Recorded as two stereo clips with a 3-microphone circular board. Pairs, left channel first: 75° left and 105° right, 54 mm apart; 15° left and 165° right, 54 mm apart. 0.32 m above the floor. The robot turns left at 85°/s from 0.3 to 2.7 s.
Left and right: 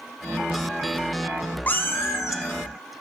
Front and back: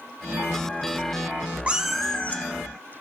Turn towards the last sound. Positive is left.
turn(degrees=40)